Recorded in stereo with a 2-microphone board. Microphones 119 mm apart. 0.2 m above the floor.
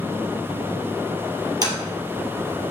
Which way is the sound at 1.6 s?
35° right (ahead or behind).